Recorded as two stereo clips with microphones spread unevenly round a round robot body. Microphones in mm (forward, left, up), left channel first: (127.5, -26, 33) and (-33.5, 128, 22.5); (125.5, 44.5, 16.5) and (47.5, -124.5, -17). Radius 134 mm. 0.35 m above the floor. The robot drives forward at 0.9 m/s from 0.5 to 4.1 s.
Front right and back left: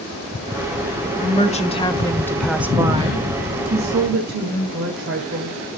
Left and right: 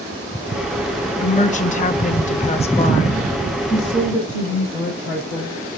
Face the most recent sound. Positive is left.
turn(degrees=165)